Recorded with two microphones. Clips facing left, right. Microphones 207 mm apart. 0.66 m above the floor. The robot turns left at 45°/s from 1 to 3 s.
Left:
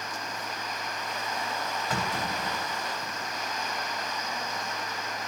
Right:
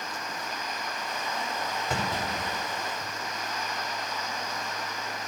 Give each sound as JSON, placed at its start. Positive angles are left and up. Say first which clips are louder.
{"t": 1.9, "sound": "a clunk", "louder": "right 1 dB", "side_deg": -25, "distance_m": 4.5}